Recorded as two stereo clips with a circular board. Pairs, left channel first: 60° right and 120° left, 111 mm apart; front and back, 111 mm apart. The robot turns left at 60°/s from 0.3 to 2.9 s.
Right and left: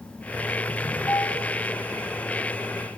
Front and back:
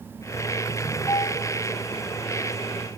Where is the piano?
30° right, 1.8 m; by 1.4 s 50° right, 1.8 m.